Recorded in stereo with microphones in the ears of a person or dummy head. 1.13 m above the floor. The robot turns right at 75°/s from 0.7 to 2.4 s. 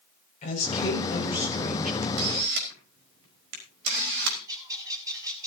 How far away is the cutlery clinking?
No cutlery clinking in this recording.